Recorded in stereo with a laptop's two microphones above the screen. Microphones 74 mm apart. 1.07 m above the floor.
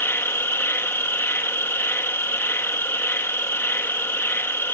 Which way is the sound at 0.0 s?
30° left (ahead or behind).